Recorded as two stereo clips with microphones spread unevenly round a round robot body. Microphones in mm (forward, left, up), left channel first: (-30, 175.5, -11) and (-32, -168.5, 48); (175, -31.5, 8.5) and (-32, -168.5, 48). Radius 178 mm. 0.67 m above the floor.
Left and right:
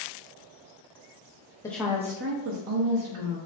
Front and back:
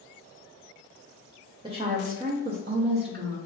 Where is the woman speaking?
140° left, 0.6 m; by 3.4 s 90° right, 1.0 m.